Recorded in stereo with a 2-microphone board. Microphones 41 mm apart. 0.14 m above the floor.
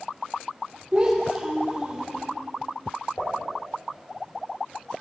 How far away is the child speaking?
About 3 m.